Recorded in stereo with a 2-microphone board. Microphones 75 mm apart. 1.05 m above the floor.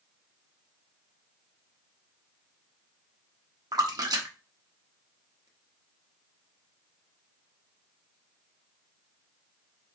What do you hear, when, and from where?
3.7 s a splash: 60° right (ahead or behind), 0.7 m